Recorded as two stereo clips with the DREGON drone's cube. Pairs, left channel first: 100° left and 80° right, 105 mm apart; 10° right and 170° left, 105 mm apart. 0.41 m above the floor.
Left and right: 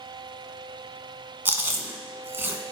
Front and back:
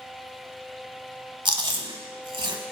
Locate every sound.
1.4 s chewing: 150° right, 0.9 m